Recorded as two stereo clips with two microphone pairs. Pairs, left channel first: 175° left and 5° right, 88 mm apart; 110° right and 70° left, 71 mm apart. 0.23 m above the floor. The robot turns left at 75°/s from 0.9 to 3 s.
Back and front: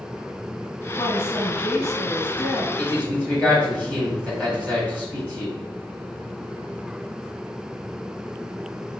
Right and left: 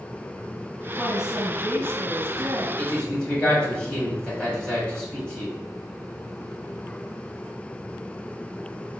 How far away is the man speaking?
About 1.5 m.